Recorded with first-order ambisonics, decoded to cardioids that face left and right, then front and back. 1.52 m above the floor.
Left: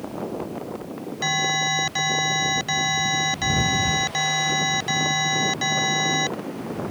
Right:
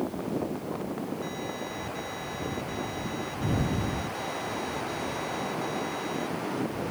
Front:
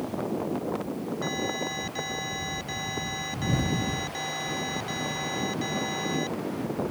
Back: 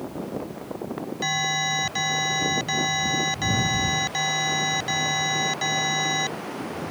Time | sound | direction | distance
1.2 | an alarm | 120° left | ?